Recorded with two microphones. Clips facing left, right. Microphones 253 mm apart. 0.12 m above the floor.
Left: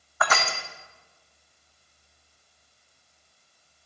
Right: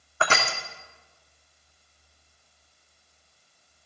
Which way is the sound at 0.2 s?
30° right (ahead or behind).